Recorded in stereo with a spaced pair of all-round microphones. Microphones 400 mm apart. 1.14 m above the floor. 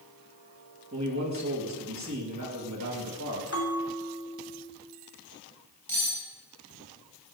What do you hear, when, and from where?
0.9 s a man speaking: 45° right (ahead or behind), 2.5 m
3.5 s a bell: 35° left (ahead or behind), 2.5 m
5.9 s cutlery clinking: 70° right (ahead or behind), 5.5 m